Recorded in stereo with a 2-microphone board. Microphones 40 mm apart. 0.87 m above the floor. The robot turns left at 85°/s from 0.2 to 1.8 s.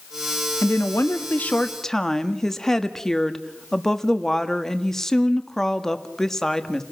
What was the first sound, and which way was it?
A woman speaking, 110° left.